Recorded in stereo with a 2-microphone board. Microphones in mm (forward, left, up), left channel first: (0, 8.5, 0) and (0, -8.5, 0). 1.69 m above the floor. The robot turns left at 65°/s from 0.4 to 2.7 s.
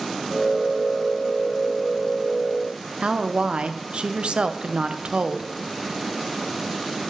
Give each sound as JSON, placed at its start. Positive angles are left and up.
{"t": 3.0, "sound": "a woman speaking", "side_deg": -65, "distance_m": 0.8}